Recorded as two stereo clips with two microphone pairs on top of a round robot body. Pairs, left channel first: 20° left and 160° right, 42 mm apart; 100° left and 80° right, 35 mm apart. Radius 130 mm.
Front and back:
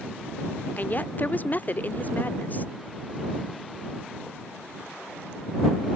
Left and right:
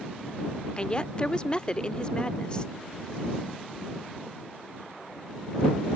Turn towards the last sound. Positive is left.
turn(degrees=55)